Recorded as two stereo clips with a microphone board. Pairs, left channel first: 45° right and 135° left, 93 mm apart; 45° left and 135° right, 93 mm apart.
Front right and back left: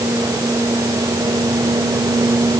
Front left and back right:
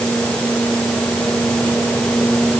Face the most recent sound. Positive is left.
No sound to turn to.